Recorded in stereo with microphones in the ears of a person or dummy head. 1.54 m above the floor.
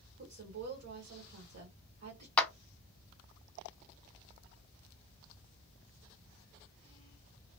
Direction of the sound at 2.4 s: 5° left (ahead or behind).